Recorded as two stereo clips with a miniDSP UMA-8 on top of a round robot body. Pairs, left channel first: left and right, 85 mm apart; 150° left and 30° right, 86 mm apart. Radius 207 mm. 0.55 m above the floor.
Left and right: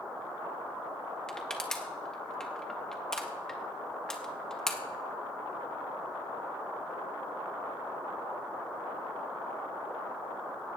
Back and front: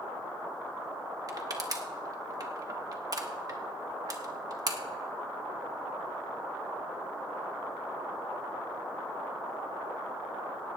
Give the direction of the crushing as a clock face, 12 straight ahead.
12 o'clock.